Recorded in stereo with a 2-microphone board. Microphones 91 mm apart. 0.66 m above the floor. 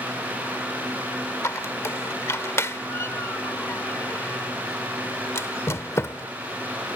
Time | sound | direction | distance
1.4 | a squeak | 30° left (ahead or behind) | ?